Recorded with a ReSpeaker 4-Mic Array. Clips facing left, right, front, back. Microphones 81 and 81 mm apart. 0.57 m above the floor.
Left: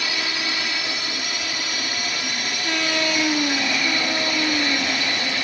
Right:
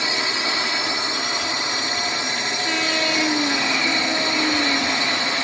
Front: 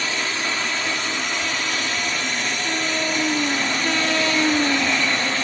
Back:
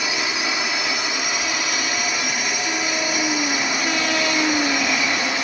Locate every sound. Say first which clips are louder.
0.0 s a drone: right 3 dB, back 1 dB; 115° right